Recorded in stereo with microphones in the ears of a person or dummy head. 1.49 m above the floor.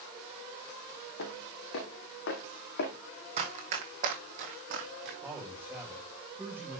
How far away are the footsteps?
About 4 m.